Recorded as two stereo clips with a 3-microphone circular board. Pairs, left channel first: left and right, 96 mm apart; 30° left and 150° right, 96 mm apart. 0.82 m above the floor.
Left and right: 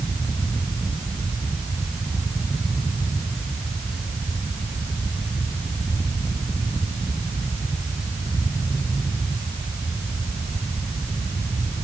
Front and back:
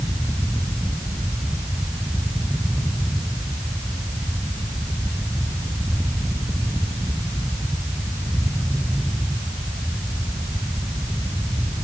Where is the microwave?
I don't hear a microwave.